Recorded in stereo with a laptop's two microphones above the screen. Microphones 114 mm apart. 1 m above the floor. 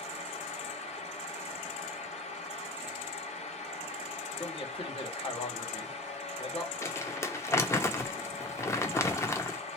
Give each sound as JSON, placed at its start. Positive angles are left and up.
{"t": 0.0, "sound": "a fan", "side_deg": 80, "distance_m": 1.4}
{"t": 4.3, "sound": "a man speaking", "side_deg": 55, "distance_m": 1.7}
{"t": 6.8, "sound": "crumpling", "side_deg": 25, "distance_m": 0.8}